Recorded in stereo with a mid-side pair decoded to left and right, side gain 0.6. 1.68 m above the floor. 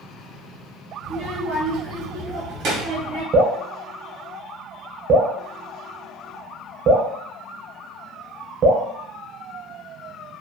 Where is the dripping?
50° right, 0.8 m.